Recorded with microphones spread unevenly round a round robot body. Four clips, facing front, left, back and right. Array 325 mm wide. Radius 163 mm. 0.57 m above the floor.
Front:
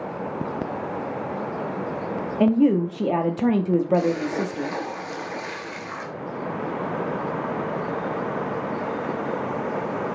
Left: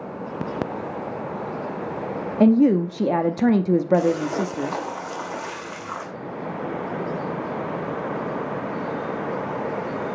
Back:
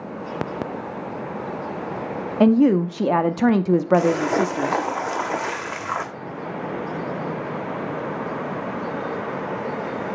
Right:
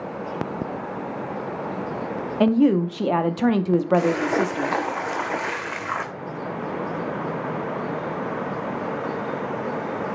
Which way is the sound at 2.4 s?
150° left.